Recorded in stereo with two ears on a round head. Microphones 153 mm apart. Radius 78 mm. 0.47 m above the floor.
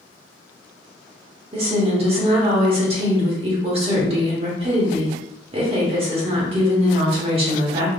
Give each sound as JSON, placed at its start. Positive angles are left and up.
{"t": 1.5, "sound": "a woman speaking", "side_deg": -35, "distance_m": 1.1}